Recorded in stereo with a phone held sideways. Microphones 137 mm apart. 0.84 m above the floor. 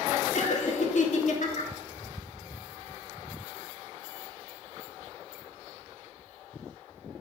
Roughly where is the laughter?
Left.